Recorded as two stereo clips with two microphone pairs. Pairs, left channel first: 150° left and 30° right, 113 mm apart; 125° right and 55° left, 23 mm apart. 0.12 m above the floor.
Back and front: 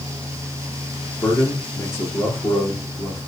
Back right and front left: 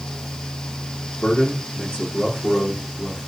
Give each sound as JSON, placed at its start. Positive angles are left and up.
{"t": 1.2, "sound": "a man speaking", "azimuth_deg": -145, "distance_m": 6.5}